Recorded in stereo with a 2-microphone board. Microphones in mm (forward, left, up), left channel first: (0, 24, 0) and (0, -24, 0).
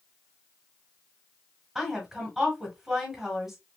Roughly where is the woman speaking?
Centre.